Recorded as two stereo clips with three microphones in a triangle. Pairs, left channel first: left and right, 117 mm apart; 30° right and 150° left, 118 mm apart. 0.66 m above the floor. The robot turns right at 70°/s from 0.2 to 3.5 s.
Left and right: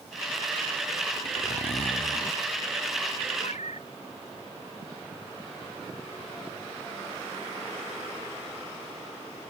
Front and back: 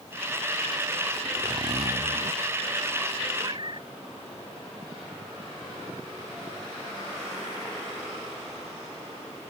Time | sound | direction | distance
1.2 | a zipper | 75° left | ?
3.4 | a cat meowing | 95° left | ?